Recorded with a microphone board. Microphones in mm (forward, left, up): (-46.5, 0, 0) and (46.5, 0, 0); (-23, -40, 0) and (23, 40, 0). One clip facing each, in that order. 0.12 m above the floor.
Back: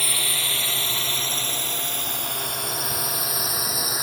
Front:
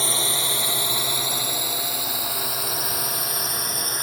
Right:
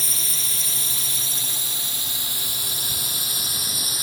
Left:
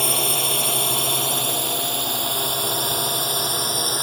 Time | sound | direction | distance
0.0 | a drone | 65° left | ?